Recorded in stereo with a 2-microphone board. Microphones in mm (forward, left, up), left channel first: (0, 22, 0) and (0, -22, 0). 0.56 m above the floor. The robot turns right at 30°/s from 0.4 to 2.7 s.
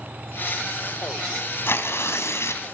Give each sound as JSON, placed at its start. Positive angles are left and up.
{"t": 1.7, "sound": "tearing paper", "side_deg": 60, "distance_m": 2.5}